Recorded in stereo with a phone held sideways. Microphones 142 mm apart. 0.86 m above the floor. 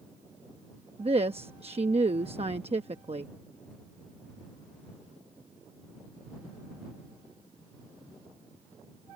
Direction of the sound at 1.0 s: 45° right (ahead or behind).